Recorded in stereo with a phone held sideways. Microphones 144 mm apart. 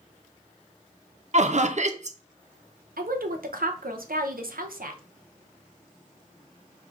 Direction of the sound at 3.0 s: 85° right.